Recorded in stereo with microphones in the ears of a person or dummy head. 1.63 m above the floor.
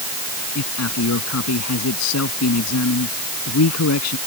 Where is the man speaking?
85° left.